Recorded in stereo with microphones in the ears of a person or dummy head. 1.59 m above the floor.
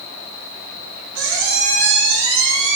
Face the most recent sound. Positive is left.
turn(degrees=-65)  # may be behind; listen again after turning